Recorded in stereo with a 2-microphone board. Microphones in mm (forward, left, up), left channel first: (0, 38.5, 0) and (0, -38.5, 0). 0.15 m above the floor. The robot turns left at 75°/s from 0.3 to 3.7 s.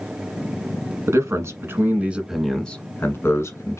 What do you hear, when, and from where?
1.1 s a man speaking: 80° right, 1.3 m; by 3.8 s 85° left, 1.3 m